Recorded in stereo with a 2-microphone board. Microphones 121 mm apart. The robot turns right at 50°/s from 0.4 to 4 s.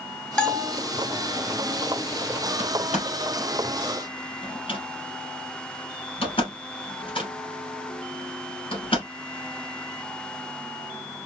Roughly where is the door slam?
Left.